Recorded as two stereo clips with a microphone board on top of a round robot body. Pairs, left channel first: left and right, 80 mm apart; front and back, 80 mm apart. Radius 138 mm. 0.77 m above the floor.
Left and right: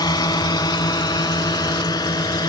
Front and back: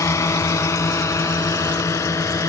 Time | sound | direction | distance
0.0 | a drone | 55° left | ?